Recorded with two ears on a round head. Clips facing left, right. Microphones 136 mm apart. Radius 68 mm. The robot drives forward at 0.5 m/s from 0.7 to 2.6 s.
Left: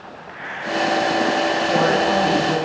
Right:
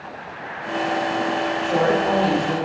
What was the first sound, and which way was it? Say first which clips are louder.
A woman speaking: right 1 dB; centre (ahead or behind).